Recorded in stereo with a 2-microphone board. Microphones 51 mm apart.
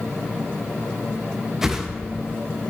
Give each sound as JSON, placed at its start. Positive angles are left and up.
{"t": 1.6, "sound": "a whoosh", "side_deg": -10, "distance_m": 0.5}